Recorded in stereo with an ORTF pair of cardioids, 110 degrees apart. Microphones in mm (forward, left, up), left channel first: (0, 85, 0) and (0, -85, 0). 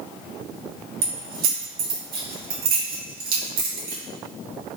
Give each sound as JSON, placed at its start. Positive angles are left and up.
{"t": 1.0, "sound": "keys jangling", "azimuth_deg": -65, "distance_m": 1.1}